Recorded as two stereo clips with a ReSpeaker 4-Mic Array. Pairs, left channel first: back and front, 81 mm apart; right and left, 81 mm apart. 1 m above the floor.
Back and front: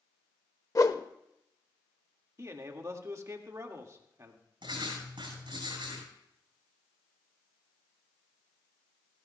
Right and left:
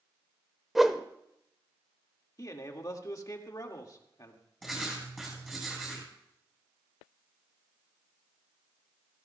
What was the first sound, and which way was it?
A whoosh, 175° left.